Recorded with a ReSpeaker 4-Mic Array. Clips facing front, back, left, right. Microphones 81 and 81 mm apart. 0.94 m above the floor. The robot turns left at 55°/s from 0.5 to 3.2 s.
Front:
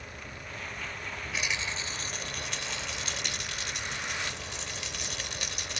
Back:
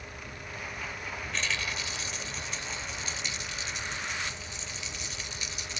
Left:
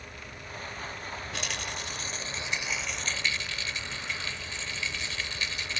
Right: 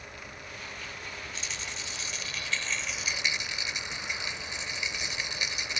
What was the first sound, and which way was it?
A rattle, 85° left.